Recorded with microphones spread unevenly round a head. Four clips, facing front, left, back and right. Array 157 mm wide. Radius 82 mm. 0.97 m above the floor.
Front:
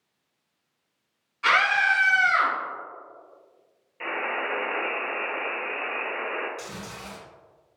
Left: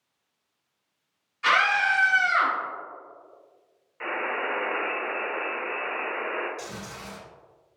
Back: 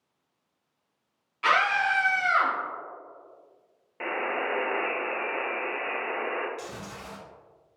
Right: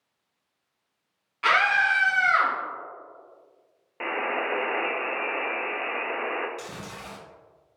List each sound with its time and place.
1.4 s a scream: 115° right, 1.7 m; by 2.5 s 100° right, 1.0 m
4.0 s a buzzer: 120° right, 0.5 m
6.6 s chewing: 70° right, 1.9 m